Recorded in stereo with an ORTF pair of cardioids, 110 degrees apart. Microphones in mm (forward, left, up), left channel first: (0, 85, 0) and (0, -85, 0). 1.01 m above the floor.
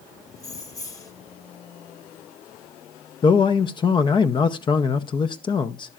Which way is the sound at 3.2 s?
30° left.